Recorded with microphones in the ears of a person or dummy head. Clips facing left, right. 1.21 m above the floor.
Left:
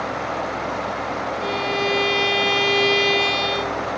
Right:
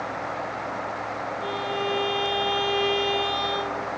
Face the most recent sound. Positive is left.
turn(degrees=35)  # may be behind; listen again after turning